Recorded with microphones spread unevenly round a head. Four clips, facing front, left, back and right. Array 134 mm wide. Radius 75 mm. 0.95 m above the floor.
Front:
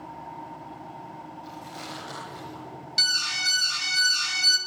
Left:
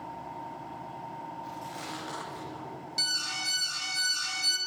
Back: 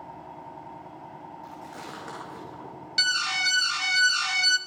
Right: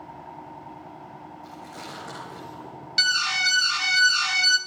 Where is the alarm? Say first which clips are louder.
Right 15 dB, back 4 dB; 120° right, 0.6 m.